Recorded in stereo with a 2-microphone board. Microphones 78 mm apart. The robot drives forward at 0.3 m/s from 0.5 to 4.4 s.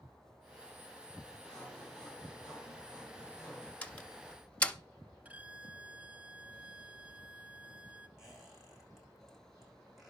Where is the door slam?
15° left (ahead or behind), 1.1 m; by 4.8 s 20° left (ahead or behind), 1.1 m.